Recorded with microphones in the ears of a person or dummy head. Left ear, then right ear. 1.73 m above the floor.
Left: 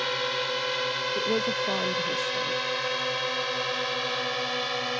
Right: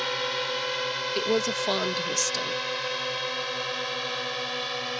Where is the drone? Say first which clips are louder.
Even; 10° right (ahead or behind); by 5.0 s centre (ahead or behind).